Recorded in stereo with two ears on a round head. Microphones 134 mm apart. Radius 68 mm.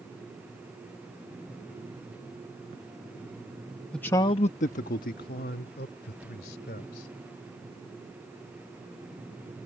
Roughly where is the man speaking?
Centre.